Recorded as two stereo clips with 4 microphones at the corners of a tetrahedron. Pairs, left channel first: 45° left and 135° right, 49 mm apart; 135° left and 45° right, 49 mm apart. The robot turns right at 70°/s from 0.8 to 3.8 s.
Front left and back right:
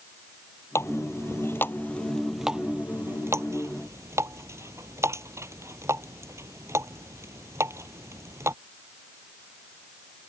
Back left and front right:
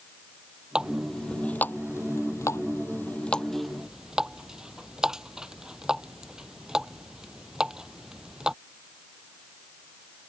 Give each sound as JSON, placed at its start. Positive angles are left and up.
{"t": 0.8, "sound": "a running tap", "azimuth_deg": 30}